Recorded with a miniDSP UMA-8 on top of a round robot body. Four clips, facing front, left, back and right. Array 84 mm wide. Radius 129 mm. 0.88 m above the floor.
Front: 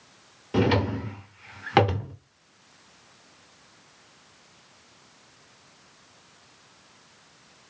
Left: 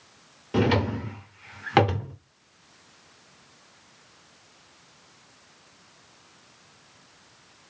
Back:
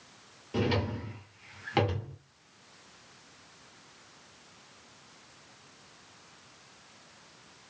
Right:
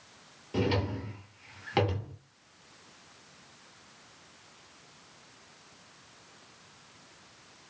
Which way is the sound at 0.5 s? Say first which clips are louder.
Left 7 dB, front 7 dB; 45° left.